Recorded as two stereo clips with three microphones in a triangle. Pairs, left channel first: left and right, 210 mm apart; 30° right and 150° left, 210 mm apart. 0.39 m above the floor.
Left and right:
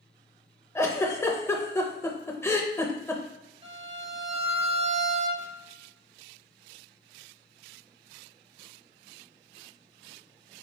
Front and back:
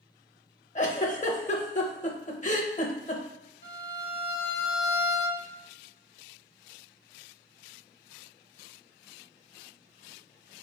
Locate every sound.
0.8 s a giggle: 15° left, 0.6 m
3.6 s a violin: 30° right, 1.1 m